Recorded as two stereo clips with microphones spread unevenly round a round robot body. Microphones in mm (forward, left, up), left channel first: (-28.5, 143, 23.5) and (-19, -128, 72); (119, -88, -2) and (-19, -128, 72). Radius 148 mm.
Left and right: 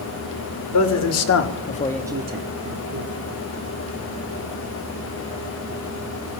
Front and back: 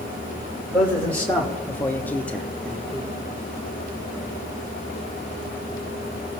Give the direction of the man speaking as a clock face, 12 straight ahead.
9 o'clock.